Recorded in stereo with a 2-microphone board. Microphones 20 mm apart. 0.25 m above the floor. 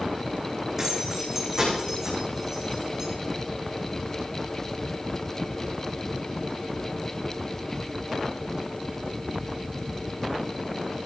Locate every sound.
0.8 s keys jangling: 20° right (ahead or behind), 9 m; by 3.1 s 25° right (ahead or behind), 10 m